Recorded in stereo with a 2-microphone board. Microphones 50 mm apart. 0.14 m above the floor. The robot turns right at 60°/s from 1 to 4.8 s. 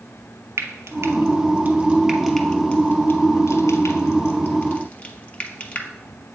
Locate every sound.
0.6 s frying: 70° right (ahead or behind), 0.7 m; by 5.9 s 25° left (ahead or behind), 0.7 m